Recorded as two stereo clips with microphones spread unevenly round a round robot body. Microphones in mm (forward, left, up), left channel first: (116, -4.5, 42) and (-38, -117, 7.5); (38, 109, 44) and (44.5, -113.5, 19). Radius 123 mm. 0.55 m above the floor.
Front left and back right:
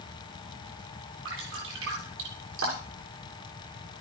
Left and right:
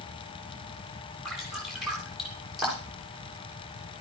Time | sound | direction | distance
1.2 | dripping | 175° right | 8.5 m